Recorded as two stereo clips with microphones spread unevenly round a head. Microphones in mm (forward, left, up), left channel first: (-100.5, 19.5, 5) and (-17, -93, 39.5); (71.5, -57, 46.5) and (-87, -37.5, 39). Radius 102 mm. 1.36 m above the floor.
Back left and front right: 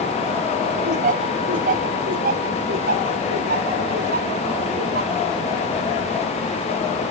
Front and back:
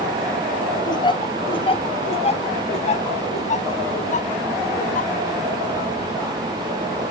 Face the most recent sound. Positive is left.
turn(degrees=-40)